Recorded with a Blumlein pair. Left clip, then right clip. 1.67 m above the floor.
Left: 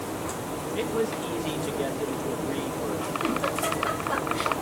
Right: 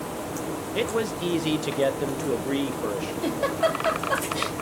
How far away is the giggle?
About 2.5 m.